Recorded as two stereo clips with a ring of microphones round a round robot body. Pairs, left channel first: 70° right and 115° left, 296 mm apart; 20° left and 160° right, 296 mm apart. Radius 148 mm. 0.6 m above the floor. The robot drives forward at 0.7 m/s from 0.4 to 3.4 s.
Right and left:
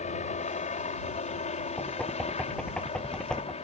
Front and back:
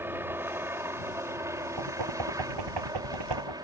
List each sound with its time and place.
0.0 s a helicopter: 85° right; by 3.6 s 100° right
1.8 s knocking: 155° right